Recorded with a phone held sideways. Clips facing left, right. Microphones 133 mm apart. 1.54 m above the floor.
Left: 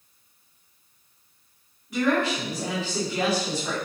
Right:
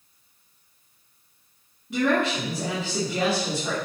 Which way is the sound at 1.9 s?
25° right (ahead or behind).